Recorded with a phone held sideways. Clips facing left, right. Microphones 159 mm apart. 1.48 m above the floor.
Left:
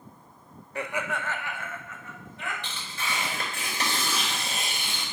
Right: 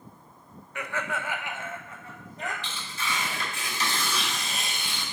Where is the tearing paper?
60° left (ahead or behind), 4 m.